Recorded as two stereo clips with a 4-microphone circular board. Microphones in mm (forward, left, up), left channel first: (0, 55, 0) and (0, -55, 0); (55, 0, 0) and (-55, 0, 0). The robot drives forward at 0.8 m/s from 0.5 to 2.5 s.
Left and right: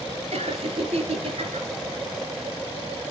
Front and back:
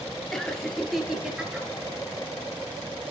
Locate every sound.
0.3 s laughter: 85° right, 3.5 m; by 1.7 s 105° right, 3.5 m